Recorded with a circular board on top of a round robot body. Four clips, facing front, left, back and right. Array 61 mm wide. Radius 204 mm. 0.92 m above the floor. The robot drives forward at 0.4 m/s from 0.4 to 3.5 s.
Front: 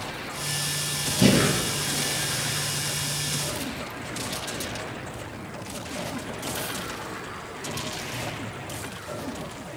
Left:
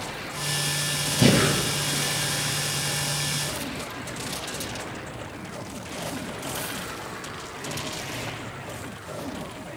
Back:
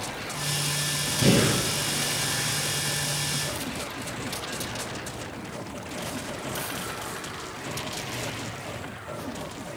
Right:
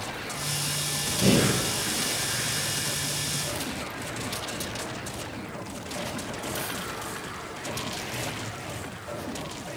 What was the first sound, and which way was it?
Breathing, 65° left.